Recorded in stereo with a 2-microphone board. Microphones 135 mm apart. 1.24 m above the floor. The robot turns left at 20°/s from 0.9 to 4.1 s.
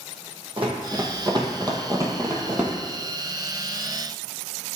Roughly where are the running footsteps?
Right.